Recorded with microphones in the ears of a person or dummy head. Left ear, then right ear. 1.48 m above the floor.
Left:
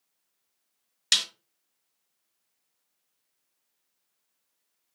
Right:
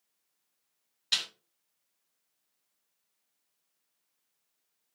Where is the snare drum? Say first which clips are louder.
Left 6 dB; 75° left (ahead or behind), 1.3 m.